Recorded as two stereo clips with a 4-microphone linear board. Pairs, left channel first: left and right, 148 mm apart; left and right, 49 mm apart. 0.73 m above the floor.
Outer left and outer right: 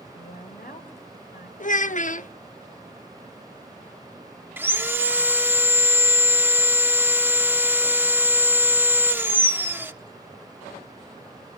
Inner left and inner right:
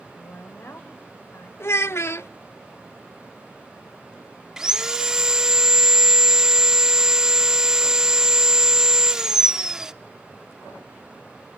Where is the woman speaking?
75° left (ahead or behind), 3.5 m.